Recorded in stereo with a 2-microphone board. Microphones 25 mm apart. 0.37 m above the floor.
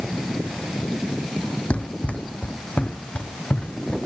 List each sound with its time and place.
1.7 s running footsteps: 70° left (ahead or behind), 1.0 m; by 4.0 s 65° left (ahead or behind), 2.5 m